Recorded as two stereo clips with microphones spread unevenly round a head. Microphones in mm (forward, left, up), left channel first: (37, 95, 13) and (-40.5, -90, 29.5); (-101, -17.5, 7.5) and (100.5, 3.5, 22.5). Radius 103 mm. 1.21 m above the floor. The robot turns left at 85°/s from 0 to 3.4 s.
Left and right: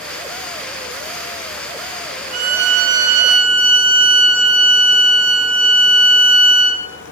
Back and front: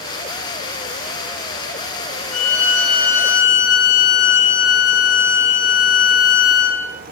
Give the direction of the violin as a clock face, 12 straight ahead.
4 o'clock.